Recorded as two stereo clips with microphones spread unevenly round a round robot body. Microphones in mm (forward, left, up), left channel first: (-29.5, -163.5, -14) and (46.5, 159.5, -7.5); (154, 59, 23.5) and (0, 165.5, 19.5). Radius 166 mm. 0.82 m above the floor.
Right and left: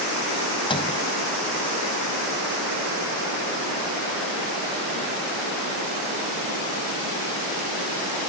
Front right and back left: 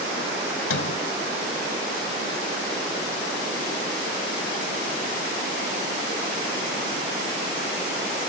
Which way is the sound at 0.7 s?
30° right.